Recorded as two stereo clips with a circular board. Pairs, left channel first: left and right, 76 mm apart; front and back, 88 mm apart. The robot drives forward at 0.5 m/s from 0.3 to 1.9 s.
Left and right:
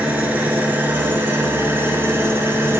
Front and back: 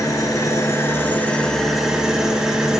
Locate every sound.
0.0 s an engine running: 30° right, 1.1 m; by 2.8 s 100° right, 0.8 m